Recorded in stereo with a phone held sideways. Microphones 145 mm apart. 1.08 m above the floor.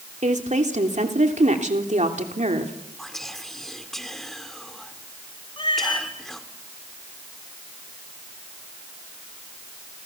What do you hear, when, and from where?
0.2 s a woman speaking: 55° right (ahead or behind), 3 m
3.0 s whispering: centre (ahead or behind), 2.5 m
5.6 s a cat meowing: 35° left (ahead or behind), 3.5 m